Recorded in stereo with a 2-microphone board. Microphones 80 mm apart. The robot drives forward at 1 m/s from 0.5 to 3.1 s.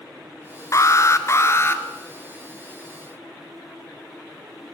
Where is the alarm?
40° left (ahead or behind), 1.4 m; by 1.8 s 30° left (ahead or behind), 1.7 m.